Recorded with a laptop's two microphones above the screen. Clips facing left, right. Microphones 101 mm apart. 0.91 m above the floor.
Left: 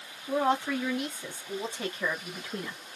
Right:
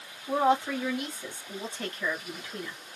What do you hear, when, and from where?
0.3 s a woman speaking: 15° right (ahead or behind), 2.5 m; by 2.8 s 35° left (ahead or behind), 1.7 m